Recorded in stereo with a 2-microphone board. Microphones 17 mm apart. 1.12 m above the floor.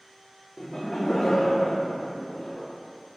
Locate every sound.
0.6 s laughter: 20° left (ahead or behind), 0.9 m; by 2.7 s 50° left (ahead or behind), 1.7 m